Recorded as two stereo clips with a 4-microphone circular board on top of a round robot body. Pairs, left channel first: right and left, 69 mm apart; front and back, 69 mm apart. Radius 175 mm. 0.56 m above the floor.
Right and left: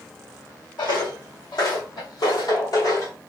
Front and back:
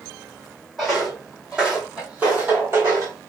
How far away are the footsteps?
About 1.8 m.